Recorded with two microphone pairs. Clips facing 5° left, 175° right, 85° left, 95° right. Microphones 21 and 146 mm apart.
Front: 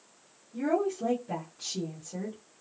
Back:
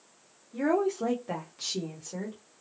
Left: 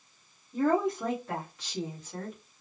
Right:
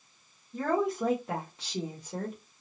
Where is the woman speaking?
170° left, 0.9 m; by 2.4 s 135° right, 1.1 m.